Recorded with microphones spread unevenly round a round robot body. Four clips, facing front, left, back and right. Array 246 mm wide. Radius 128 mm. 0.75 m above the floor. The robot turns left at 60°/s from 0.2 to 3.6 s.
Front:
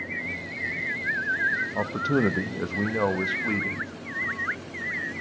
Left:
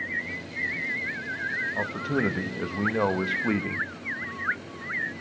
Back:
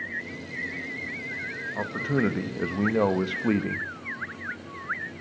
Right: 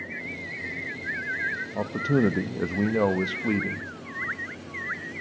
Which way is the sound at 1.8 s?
60° right.